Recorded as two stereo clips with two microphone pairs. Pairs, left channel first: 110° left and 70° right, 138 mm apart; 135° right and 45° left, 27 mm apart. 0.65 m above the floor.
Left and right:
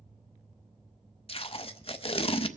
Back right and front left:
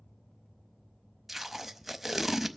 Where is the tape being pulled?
125° left, 0.6 m.